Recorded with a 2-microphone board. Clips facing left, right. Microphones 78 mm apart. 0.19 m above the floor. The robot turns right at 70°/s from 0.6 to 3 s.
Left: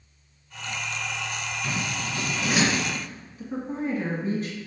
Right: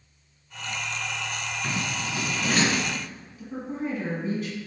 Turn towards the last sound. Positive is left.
turn(degrees=35)  # may be behind; listen again after turning